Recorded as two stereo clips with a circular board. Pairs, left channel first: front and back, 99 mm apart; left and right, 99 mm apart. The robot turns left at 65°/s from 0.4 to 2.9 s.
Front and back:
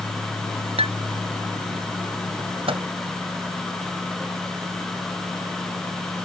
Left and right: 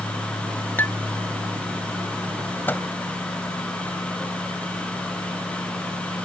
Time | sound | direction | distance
0.8 | dishes clattering | 160° left | ?
2.7 | a microwave | 160° left | ?